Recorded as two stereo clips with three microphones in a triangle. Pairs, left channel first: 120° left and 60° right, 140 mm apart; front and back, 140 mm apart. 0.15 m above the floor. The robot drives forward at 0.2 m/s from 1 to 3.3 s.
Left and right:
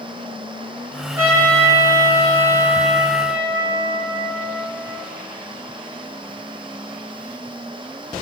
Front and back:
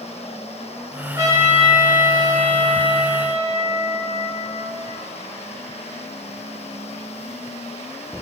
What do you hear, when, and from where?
1.2 s a trumpet: 120° right, 1.2 m; by 5.0 s 140° right, 1.4 m